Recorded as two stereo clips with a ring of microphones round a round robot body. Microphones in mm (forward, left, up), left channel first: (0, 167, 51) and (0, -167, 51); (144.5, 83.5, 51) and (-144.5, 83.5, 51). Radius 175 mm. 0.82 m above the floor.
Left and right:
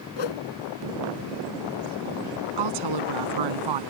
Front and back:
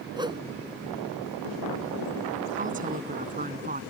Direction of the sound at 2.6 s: 110° right.